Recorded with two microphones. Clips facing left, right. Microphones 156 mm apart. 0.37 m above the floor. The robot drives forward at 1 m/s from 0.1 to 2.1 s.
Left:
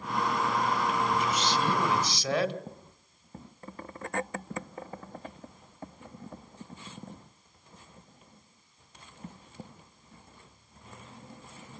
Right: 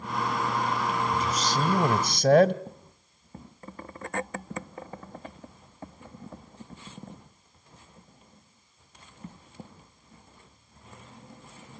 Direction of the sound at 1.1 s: 40° right (ahead or behind).